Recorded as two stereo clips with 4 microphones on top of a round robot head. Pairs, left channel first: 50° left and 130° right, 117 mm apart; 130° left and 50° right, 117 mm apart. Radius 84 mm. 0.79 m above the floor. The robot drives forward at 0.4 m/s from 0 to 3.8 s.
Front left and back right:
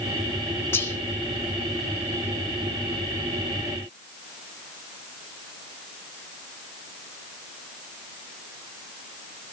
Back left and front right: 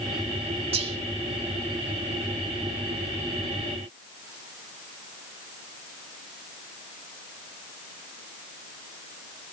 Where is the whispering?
20° right, 3 m.